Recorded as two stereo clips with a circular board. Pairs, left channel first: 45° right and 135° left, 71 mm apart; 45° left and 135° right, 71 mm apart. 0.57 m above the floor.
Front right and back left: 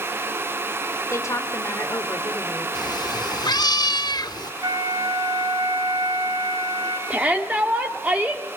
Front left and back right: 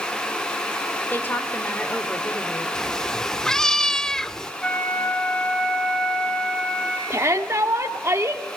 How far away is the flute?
About 6 m.